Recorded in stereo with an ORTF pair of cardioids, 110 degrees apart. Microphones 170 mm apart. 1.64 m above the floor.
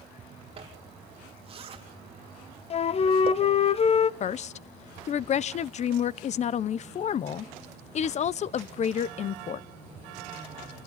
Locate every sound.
0.6 s a zipper: 35° right, 3.5 m
2.7 s a flute: 35° left, 1.0 m
4.2 s a woman speaking: 45° left, 0.8 m